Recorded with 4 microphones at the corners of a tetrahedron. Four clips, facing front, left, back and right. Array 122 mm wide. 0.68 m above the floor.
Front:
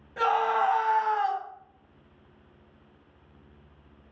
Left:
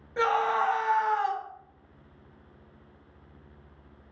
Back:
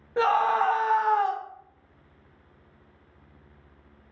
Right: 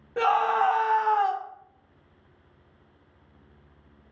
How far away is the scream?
About 0.7 m.